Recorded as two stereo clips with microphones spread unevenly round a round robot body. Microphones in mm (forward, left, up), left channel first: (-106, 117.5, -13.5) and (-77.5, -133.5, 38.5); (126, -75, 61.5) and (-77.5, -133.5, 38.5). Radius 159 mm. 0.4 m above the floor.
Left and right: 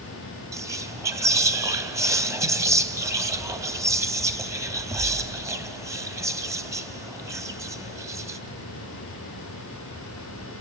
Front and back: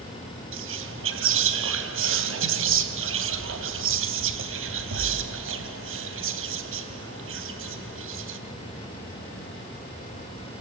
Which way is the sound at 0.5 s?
165° right.